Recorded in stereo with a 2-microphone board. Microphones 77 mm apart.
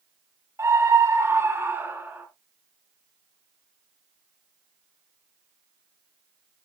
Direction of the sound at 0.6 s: 40° right (ahead or behind).